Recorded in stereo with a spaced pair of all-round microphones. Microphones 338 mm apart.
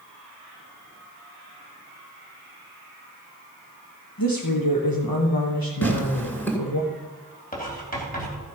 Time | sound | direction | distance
4.2 | a woman speaking | 85° left | 1.1 m
5.8 | tearing paper | 5° left (ahead or behind) | 2 m
7.5 | writing | 25° left (ahead or behind) | 3 m